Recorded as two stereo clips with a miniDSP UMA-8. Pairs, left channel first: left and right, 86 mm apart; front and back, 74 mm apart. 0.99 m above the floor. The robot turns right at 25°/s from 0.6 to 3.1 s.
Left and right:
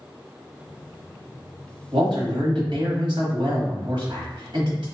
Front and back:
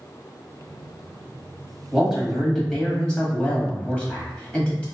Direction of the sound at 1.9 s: 105° right.